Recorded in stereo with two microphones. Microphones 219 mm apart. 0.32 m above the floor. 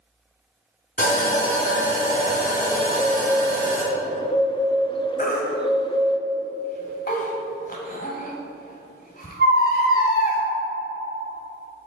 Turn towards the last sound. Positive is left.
turn(degrees=40)  # may be behind; listen again after turning